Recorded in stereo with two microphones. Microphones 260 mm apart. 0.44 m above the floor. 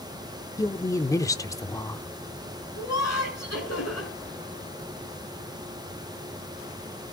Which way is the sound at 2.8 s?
75° left (ahead or behind).